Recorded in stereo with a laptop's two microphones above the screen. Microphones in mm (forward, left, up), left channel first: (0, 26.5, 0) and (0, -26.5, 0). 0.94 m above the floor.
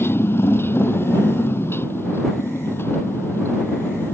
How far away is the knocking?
No knocking in this recording.